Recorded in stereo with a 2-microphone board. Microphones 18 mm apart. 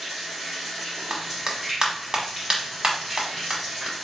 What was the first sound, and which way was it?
Running water, 5° right (ahead or behind).